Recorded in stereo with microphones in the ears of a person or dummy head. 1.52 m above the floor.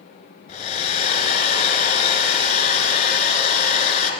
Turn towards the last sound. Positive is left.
turn(degrees=35)  # may be behind; listen again after turning